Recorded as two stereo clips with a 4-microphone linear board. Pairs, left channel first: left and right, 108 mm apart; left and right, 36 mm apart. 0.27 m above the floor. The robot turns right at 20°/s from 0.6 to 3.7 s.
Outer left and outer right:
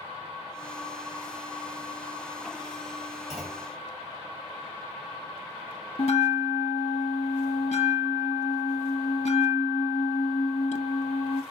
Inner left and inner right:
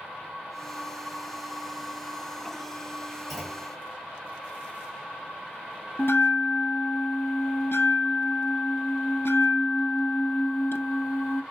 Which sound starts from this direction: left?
A bell, at 6.0 s.